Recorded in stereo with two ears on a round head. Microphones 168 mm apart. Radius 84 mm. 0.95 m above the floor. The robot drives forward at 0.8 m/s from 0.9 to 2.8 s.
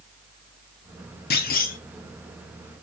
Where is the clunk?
55° left (ahead or behind), 1.9 m; by 1.8 s 45° left (ahead or behind), 2 m.